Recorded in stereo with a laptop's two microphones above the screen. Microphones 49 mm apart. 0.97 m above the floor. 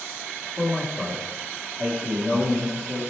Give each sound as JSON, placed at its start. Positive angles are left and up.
{"t": 0.6, "sound": "a man speaking", "side_deg": -25, "distance_m": 1.4}